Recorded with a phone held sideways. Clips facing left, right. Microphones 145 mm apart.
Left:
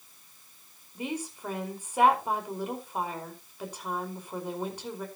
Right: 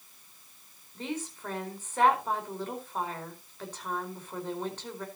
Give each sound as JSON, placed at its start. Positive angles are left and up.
{"t": 0.9, "sound": "a woman speaking", "side_deg": 10, "distance_m": 4.5}